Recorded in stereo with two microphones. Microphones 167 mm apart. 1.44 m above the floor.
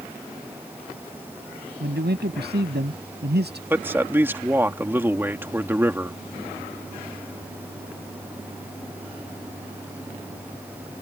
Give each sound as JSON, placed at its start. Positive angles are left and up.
{"t": 1.8, "sound": "a man speaking", "side_deg": -85}
{"t": 3.7, "sound": "a man speaking", "side_deg": -15}